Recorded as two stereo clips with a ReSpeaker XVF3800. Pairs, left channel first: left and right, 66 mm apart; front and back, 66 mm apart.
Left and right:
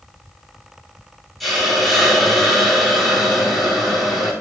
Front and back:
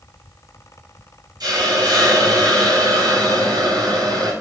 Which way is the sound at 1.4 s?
Straight behind.